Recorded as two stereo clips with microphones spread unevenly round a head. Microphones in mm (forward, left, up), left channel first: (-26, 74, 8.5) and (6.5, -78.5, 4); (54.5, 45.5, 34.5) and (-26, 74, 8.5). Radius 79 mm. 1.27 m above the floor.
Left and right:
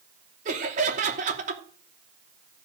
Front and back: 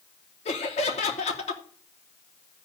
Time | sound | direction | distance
0.5 | laughter | 30° right | 2.5 m